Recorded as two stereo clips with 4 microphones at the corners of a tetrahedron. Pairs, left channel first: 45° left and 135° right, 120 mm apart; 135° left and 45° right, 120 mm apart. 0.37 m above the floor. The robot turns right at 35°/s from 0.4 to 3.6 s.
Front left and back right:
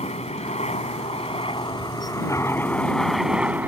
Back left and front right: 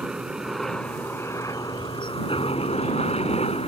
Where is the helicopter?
40° left; by 3.7 s 150° left.